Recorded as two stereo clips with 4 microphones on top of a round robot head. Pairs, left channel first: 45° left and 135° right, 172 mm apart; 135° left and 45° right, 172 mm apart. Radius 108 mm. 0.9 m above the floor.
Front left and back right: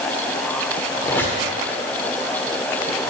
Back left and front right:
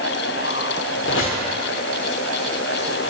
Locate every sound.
1.0 s a squeak: 125° left, 1.2 m